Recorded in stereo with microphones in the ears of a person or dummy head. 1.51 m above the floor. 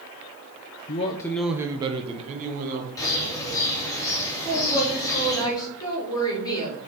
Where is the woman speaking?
25° left (ahead or behind), 3 m.